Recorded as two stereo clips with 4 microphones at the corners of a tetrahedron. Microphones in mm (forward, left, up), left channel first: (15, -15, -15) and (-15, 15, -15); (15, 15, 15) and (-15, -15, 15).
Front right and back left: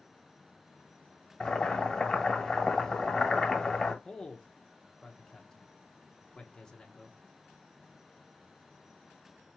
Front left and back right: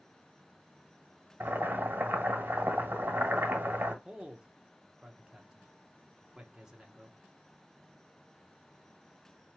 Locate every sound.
1.4 s boiling: 125° right, 1.4 m
4.0 s a man speaking: 85° right, 0.8 m